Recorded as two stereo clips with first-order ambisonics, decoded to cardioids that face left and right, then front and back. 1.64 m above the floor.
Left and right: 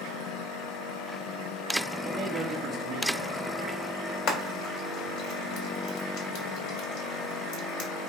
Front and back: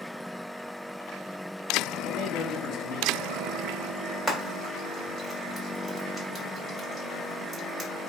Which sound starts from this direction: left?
Frying, at 4.3 s.